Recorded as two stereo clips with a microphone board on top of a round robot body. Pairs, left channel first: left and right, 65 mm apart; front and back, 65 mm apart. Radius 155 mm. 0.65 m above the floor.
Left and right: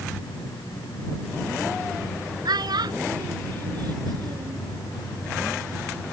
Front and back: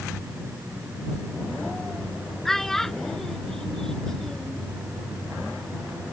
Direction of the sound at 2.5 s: 85° right.